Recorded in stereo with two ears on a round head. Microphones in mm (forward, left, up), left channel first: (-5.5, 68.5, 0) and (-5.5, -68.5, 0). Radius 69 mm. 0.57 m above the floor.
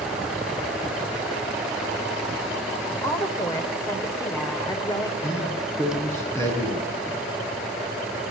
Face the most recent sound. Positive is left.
turn(degrees=20)  # may be behind; listen again after turning